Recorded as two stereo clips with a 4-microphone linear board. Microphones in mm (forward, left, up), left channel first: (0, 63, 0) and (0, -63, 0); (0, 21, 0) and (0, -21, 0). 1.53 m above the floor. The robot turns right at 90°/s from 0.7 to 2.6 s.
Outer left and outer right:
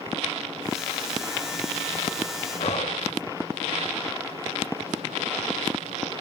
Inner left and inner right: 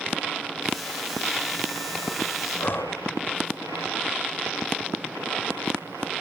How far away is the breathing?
About 3 m.